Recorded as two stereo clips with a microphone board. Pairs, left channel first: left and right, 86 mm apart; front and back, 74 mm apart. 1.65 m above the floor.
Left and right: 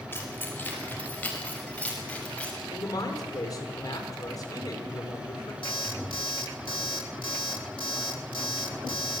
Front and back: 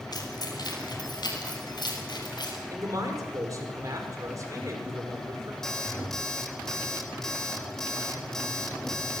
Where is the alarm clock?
85° left, 2.5 m.